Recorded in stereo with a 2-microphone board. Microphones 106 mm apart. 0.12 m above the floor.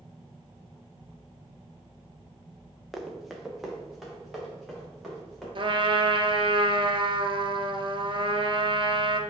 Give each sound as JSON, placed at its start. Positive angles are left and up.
{"t": 2.9, "sound": "running footsteps", "side_deg": 0, "distance_m": 1.1}
{"t": 5.5, "sound": "a trumpet", "side_deg": -55, "distance_m": 0.6}